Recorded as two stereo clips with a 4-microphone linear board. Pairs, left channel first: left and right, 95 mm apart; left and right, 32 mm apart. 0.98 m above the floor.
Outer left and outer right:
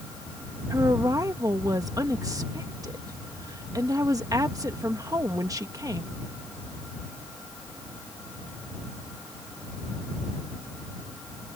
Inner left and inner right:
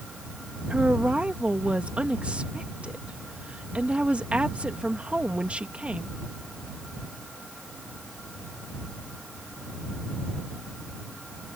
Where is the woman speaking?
40° right (ahead or behind).